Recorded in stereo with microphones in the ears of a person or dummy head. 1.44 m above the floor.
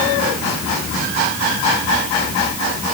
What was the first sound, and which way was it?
Only background noise.